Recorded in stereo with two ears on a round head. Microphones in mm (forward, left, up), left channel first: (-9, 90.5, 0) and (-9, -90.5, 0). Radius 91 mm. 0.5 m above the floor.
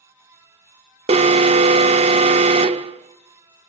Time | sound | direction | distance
1.1 | an alarm | 30° right (ahead or behind) | 0.6 m